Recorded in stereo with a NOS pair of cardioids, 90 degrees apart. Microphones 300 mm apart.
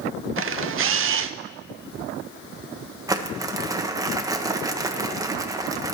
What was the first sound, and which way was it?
A camera shutter, 45° right.